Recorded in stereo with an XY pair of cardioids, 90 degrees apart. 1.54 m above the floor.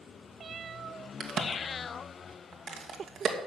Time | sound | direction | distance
1.2 | a crack | 55° right | 2 m